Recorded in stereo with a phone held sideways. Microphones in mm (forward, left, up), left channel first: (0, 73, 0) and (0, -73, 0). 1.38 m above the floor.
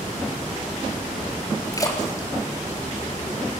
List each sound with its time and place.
1.7 s a splash: 25° left (ahead or behind), 4 m